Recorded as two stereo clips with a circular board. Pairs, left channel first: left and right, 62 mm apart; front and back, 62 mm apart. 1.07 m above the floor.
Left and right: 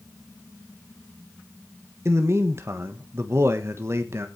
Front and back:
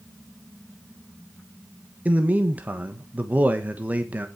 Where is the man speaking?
120° right, 1.2 m.